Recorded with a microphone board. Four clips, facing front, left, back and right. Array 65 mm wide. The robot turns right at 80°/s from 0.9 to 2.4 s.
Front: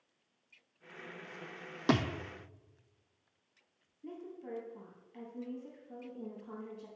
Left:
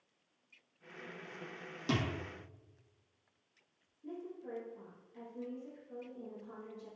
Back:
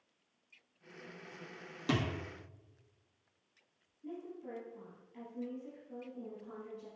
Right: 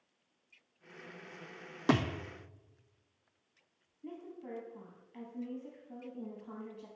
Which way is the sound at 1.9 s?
50° right.